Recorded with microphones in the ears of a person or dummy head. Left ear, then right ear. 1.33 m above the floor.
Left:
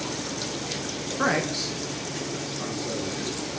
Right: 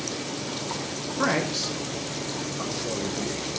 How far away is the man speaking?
About 0.7 m.